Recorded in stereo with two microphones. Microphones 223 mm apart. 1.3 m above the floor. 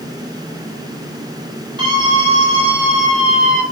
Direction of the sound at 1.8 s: 20° right (ahead or behind).